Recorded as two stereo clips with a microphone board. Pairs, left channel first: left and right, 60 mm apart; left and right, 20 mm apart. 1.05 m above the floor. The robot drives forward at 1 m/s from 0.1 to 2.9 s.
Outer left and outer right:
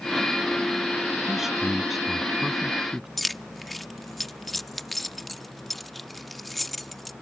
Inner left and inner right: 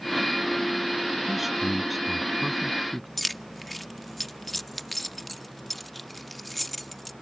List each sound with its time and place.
1.3 s a man speaking: 5° right (ahead or behind)
3.2 s keys jangling: 5° left (ahead or behind)